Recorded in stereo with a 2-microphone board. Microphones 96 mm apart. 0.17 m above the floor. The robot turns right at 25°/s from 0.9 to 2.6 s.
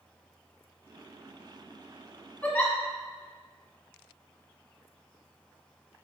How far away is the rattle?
No rattle in this recording.